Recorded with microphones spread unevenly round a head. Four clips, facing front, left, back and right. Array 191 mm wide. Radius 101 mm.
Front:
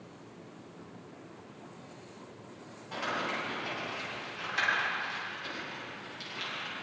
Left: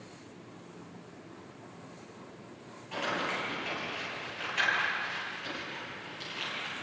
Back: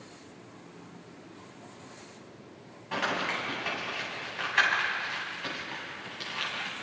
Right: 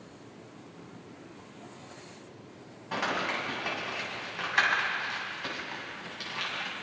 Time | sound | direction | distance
2.9 | crumpling | 135° right | 8 m